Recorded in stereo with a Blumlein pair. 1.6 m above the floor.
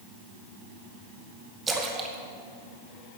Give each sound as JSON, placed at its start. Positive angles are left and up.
{"t": 1.7, "sound": "a splash", "azimuth_deg": -15, "distance_m": 2.0}